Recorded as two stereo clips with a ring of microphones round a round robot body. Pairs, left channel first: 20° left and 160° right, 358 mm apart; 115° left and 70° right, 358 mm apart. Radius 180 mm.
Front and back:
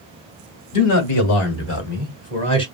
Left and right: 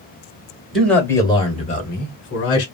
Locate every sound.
0.7 s a man speaking: 25° left, 1.8 m; by 2.6 s 95° left, 1.6 m